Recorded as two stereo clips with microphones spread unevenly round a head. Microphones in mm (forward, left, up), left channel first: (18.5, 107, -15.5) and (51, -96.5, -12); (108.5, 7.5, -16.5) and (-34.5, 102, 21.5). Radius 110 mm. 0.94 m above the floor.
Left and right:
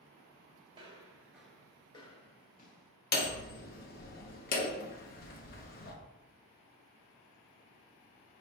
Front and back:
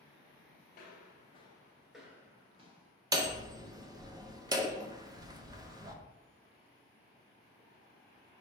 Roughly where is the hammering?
Left.